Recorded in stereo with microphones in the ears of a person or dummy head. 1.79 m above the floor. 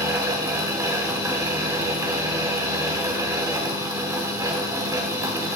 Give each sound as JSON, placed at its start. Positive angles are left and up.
{"t": 0.0, "sound": "a fan", "side_deg": -10, "distance_m": 0.8}